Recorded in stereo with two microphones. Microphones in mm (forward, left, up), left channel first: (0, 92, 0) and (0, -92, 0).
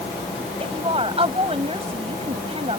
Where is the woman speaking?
35° right (ahead or behind).